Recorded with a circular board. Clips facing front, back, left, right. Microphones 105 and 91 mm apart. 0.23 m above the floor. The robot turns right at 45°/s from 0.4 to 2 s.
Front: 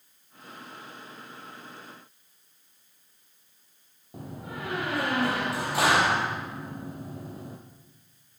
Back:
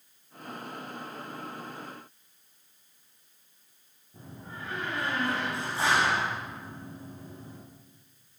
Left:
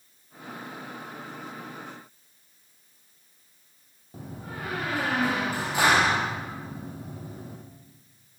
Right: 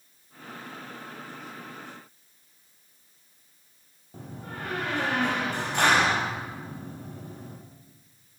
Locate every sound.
4.1 s a door slam: 5° left, 5.5 m